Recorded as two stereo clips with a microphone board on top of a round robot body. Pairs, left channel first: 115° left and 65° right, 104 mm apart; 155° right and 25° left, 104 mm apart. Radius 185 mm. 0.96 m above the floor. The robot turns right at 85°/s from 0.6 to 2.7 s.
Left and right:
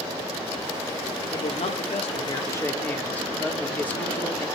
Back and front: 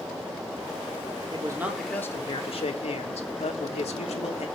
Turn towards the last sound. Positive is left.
turn(degrees=-175)